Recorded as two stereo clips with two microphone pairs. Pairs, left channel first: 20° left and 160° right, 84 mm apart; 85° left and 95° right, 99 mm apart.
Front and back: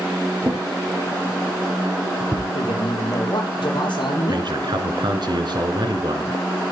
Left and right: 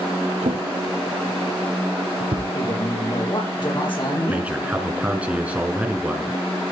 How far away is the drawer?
About 3.5 m.